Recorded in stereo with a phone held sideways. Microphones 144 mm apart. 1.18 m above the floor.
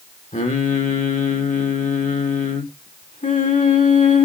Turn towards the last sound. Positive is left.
turn(degrees=60)  # may be behind; listen again after turning